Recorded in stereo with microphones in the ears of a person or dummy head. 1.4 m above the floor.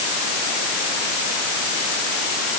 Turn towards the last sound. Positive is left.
No sound to turn to.